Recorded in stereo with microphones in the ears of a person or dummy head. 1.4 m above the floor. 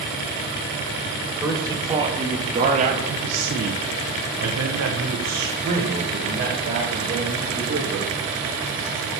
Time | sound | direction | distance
1.4 | a man speaking | 20° right (ahead or behind) | 1.5 m